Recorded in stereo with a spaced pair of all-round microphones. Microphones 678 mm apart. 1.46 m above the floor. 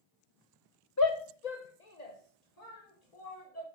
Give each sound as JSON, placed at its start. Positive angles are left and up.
{"t": 1.0, "sound": "a shout", "side_deg": 25, "distance_m": 0.6}